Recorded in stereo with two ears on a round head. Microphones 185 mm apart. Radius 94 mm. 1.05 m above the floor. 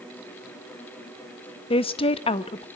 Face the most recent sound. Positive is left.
turn(degrees=25)  # may be behind; listen again after turning